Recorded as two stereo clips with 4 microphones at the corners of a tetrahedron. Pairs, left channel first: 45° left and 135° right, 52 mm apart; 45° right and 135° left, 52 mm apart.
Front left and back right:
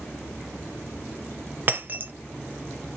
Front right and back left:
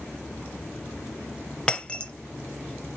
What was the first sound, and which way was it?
Breaking glass, 105° right.